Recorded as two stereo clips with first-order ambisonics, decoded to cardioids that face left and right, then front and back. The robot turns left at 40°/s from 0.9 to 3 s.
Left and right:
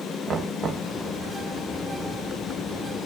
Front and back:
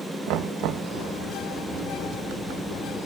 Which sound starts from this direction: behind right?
Knocking, at 0.3 s.